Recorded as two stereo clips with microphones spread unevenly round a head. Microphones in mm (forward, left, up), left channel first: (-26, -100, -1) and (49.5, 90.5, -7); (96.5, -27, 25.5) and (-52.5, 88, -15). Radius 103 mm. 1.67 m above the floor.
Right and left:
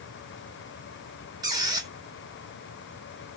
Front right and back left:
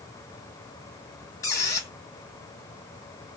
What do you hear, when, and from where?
1.4 s a squeak: 5° left, 1.3 m